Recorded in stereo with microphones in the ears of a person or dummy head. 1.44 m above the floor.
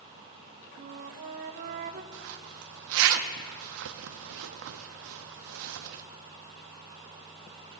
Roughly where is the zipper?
Right.